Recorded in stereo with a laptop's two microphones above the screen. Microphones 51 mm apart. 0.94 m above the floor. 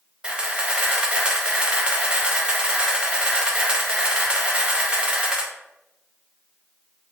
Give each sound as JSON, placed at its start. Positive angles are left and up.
{"t": 0.2, "sound": "a camera shutter", "side_deg": -20, "distance_m": 0.6}